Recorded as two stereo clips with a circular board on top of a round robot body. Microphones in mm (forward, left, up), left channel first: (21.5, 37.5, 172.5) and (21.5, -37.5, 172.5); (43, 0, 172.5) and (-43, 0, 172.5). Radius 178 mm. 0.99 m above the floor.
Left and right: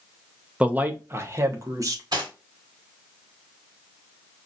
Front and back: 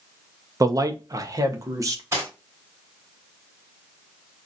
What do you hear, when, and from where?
0.6 s a man speaking: 160° right, 0.8 m; by 2.0 s 130° right, 1.5 m
2.1 s cutlery clinking: 120° right, 3 m